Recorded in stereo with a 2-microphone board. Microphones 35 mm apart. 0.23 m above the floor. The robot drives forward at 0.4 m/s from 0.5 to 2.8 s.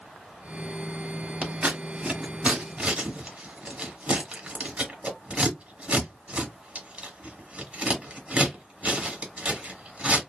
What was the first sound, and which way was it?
Scissors, 35° right (ahead or behind).